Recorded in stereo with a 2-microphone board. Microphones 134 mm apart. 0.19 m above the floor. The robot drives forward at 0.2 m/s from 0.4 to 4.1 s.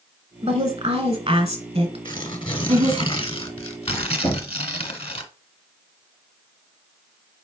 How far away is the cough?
I don't hear a cough.